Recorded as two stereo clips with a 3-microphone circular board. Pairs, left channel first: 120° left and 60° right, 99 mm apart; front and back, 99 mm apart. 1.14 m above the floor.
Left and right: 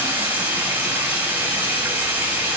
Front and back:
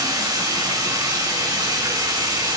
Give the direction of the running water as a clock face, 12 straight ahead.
4 o'clock.